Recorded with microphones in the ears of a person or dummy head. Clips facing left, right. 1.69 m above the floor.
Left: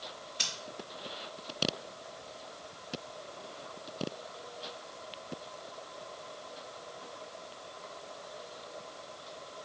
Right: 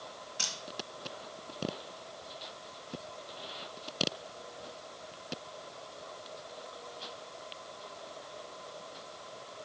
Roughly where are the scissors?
Right.